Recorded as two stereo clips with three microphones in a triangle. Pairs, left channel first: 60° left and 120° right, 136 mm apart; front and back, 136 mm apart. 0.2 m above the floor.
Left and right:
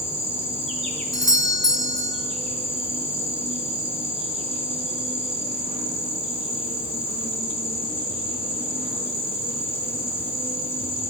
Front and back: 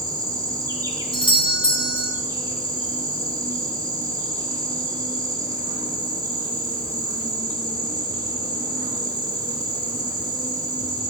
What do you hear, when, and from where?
0.0 s an insect: 125° right, 1.8 m
1.1 s a doorbell: 15° left, 1.7 m